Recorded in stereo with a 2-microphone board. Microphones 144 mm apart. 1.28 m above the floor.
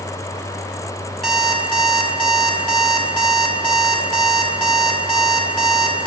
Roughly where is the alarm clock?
Centre.